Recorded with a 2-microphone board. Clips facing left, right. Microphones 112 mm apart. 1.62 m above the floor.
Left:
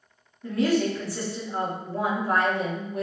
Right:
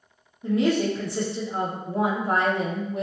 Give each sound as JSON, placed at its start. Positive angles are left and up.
{"t": 0.4, "sound": "a woman speaking", "side_deg": -20, "distance_m": 0.8}